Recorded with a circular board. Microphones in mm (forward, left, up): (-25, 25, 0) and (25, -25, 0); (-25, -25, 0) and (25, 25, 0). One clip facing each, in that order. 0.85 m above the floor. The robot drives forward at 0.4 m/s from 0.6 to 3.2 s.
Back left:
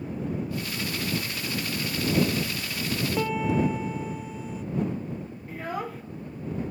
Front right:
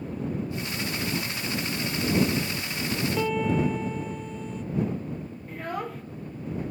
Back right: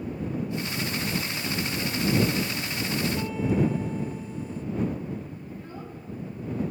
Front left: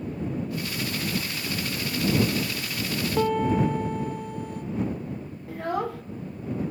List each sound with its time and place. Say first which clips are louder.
3.2 s a piano: even, front left 6 dB; 50° left, 1.6 m
5.5 s a child speaking: even, front left 11 dB; 50° left, 0.5 m